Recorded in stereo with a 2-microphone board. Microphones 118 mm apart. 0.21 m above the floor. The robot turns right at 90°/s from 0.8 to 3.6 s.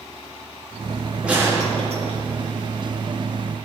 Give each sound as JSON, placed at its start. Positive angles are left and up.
{"t": 1.2, "sound": "a gunshot", "azimuth_deg": -170, "distance_m": 3.0}